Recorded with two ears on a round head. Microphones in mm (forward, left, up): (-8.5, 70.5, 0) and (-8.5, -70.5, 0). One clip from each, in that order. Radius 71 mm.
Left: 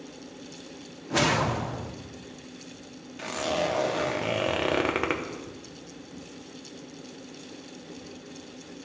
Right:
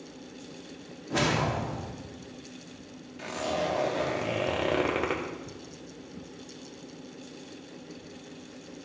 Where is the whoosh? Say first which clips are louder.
Left 3 dB; 20° left (ahead or behind), 0.7 m.